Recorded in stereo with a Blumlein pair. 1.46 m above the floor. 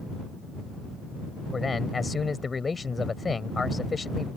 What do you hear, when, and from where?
1.5 s a man speaking: 15° left